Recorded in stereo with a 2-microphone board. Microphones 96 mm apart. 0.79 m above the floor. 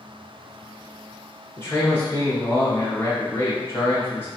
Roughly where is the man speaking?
Left.